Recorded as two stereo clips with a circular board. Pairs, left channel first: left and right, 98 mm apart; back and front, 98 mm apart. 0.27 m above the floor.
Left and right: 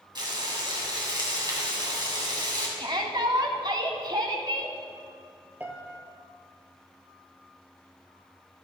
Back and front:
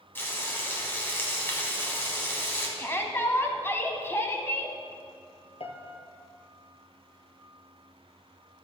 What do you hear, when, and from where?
0.1 s frying: 120° right, 2.5 m
2.8 s a shout: 120° right, 1.6 m
5.6 s a piano: 160° right, 1.5 m